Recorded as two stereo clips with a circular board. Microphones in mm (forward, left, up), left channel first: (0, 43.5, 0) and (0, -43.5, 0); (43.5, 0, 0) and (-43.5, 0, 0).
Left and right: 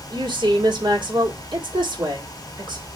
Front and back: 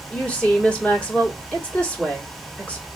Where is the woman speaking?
75° right, 1.8 m.